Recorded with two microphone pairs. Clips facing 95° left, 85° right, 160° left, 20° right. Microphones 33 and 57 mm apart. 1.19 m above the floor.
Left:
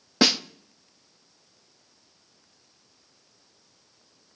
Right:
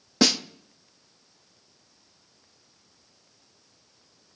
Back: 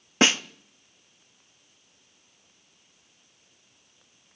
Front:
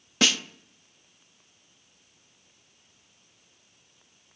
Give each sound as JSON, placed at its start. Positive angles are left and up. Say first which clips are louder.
{"t": 0.2, "sound": "a snare drum", "louder": "left 1 dB, back 3 dB", "azimuth_deg": 140, "distance_m": 0.6}